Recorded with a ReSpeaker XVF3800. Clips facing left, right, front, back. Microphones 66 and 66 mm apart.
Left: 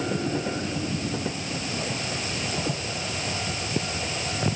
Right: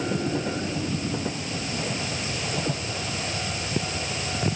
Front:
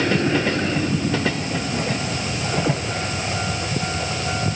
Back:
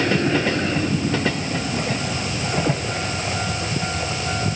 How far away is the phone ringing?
I don't hear a phone ringing.